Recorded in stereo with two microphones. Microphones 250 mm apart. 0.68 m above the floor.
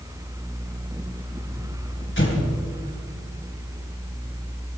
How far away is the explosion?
About 3.5 m.